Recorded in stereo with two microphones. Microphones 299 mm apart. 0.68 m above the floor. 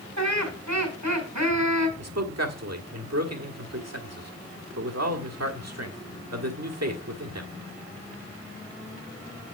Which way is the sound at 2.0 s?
60° right (ahead or behind).